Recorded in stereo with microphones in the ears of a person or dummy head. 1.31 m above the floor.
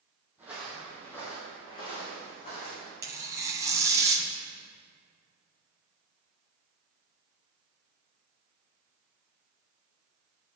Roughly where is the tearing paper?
Centre.